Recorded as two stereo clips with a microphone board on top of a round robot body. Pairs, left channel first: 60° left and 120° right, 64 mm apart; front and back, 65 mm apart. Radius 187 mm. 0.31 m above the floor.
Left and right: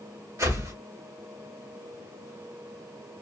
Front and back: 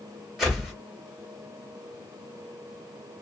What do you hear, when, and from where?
0.4 s a whoosh: 95° right, 2.5 m